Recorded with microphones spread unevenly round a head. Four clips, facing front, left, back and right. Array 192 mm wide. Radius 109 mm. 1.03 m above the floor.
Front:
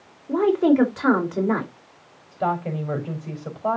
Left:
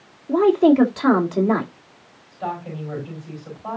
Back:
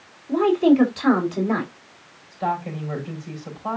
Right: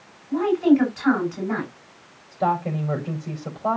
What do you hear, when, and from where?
0.3 s a woman speaking: 65° left, 4 m
2.3 s a woman speaking: 45° right, 4 m